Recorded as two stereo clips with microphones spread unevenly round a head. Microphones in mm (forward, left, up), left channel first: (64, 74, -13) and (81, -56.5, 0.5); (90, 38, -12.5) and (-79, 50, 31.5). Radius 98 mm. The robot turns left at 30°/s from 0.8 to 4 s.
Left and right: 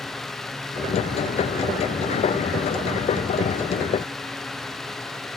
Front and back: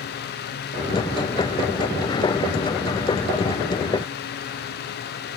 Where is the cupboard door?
No cupboard door in this recording.